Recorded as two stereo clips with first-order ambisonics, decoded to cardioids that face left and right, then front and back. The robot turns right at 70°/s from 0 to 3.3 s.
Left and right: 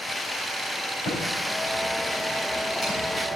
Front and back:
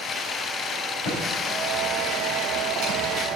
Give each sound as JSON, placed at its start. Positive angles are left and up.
{"t": 1.0, "sound": "typing on a keyboard", "azimuth_deg": 30, "distance_m": 3.5}